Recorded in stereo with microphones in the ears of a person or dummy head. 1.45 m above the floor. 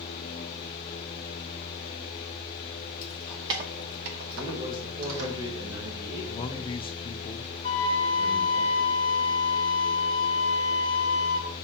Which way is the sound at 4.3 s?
20° right (ahead or behind).